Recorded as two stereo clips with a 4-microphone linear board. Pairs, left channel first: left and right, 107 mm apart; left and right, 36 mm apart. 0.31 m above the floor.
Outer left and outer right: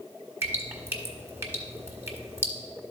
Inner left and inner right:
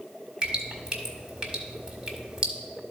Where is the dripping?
25° right (ahead or behind), 1.2 m.